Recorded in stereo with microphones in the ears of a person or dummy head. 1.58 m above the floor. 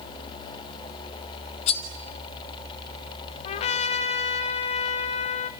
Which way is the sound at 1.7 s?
40° left (ahead or behind).